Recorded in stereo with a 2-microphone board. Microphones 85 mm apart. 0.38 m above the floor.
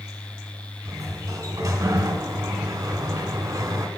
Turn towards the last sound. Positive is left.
turn(degrees=-40)  # may be behind; listen again after turning